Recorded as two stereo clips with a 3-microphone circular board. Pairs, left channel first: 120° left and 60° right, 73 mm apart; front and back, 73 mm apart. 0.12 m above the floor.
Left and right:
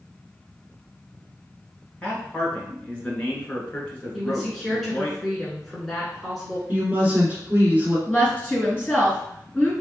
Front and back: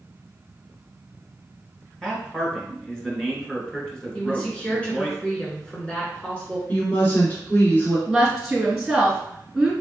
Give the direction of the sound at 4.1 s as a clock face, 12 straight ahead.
11 o'clock.